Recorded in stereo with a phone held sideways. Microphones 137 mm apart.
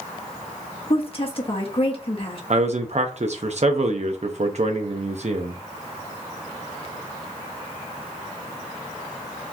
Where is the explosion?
No explosion in this recording.